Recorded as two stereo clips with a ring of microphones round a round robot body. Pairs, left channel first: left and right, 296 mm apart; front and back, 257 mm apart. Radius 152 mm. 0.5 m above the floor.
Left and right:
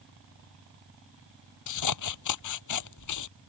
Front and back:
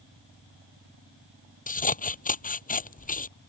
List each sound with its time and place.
1.7 s scissors: 60° left